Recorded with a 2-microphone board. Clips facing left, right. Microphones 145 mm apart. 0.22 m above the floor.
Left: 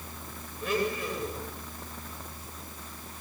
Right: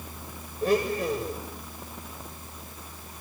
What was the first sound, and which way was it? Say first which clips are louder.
A blender: right 5 dB; 35° right (ahead or behind).